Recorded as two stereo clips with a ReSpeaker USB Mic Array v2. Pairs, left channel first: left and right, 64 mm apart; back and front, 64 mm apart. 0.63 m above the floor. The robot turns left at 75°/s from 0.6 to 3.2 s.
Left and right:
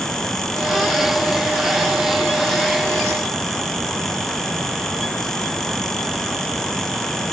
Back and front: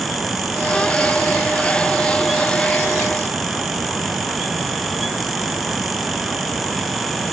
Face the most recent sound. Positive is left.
No sound to turn to.